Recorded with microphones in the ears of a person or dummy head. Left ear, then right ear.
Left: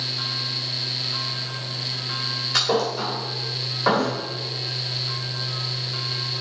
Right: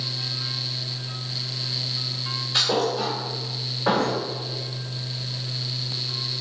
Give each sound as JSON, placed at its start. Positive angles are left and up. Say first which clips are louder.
{"t": 2.5, "sound": "a thud", "louder": "right 1 dB", "side_deg": 40, "distance_m": 1.4}